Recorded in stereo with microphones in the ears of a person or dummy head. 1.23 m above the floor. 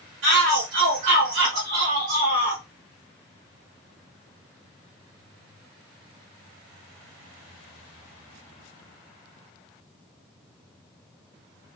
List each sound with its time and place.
0.2 s a shout: 65° right (ahead or behind), 1.0 m